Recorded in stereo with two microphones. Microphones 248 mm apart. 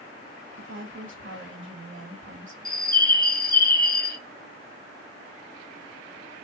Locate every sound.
0.6 s a woman speaking: 50° right (ahead or behind), 1.8 m
2.6 s a bird: 35° left (ahead or behind), 0.5 m